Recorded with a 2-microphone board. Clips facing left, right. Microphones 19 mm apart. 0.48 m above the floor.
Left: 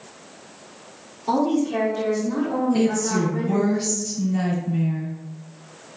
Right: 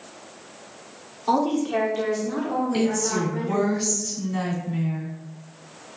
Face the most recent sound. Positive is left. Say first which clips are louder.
# left 2 dB
turn(degrees=-45)  # may be behind; listen again after turning